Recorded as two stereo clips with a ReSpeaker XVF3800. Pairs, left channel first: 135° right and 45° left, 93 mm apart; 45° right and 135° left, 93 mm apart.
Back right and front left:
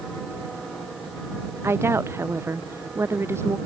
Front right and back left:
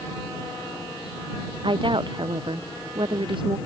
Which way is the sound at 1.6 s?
105° left.